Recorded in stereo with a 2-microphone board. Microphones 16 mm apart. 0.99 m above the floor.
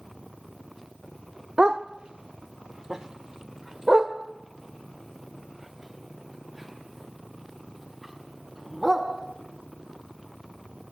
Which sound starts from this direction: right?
A dog barking, at 1.6 s.